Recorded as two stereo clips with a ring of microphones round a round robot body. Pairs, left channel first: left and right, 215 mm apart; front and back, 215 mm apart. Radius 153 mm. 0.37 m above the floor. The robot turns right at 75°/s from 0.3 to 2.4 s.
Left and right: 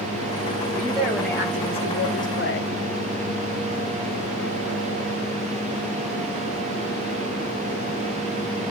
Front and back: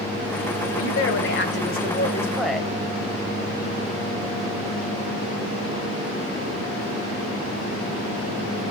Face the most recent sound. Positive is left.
turn(degrees=90)